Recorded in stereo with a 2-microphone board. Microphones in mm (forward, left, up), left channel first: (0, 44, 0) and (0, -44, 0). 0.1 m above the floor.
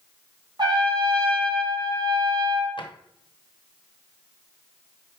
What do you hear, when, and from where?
0.6 s a trumpet: 55° right (ahead or behind), 1.4 m
2.8 s a drawer: 65° left (ahead or behind), 0.8 m